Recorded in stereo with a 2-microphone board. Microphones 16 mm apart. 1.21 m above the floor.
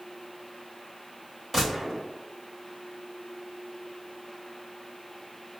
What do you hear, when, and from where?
1.5 s a gunshot: 5° right (ahead or behind), 1.9 m